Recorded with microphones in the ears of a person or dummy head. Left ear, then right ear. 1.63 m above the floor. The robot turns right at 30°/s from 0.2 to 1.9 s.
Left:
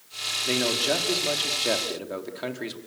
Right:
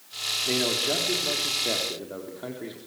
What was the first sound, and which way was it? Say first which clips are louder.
A man speaking: left 2 dB; 20° left.